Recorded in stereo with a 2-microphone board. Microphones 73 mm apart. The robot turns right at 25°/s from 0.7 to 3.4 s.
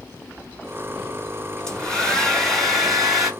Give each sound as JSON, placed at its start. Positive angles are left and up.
{"t": 1.7, "sound": "a hair dryer", "side_deg": 10, "distance_m": 1.8}